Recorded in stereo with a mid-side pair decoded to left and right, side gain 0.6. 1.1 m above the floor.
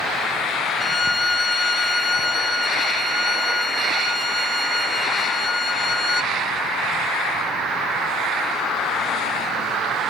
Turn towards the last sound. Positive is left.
turn(degrees=15)